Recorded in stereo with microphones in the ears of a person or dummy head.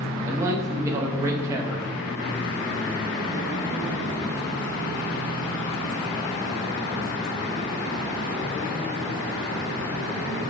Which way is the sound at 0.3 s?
20° right (ahead or behind).